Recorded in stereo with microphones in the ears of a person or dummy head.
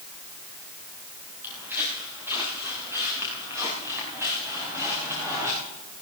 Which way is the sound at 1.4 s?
10° right (ahead or behind).